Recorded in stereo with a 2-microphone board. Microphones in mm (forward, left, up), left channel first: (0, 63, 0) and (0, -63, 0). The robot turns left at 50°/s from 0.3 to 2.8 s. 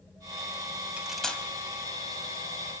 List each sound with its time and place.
1.0 s cutlery clinking: 10° right (ahead or behind), 2 m; by 1.4 s 15° left (ahead or behind), 2 m